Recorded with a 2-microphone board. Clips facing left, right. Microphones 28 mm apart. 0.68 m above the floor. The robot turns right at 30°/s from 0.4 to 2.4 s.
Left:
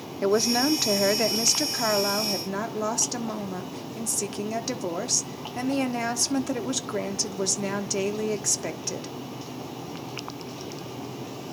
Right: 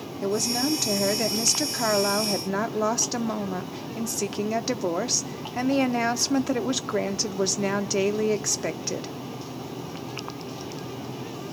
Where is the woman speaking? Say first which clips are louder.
Left 3 dB; 140° left, 1.1 m; by 9.1 s 160° right, 1.1 m.